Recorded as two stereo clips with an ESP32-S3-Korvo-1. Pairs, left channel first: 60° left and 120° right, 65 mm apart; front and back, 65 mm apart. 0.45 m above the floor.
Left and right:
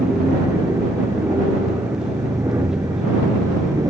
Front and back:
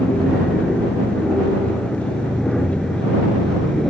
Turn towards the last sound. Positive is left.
turn(degrees=-90)